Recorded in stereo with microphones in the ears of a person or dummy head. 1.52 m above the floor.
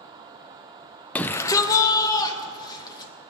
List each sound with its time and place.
1.1 s a shout: 15° left (ahead or behind), 0.6 m; by 3.1 s 30° left (ahead or behind), 2.5 m